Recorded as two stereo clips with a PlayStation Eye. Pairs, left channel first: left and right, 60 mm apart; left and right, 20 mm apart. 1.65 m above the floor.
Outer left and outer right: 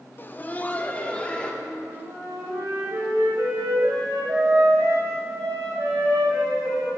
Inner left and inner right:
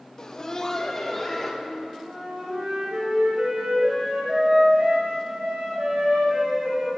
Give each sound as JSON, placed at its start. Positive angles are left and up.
{"t": 0.2, "sound": "laughter", "side_deg": 35, "distance_m": 0.7}
{"t": 1.6, "sound": "a flute", "side_deg": -85, "distance_m": 2.5}